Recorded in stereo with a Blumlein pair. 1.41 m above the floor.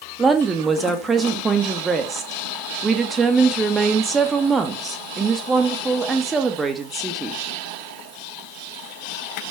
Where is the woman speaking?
15° right, 2.5 m.